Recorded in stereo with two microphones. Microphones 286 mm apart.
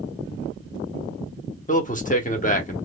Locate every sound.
1.7 s a man speaking: 25° left (ahead or behind), 1.1 m